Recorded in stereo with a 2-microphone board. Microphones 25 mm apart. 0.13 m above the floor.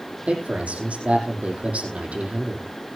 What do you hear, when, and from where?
0.3 s a man speaking: 70° right (ahead or behind), 5 m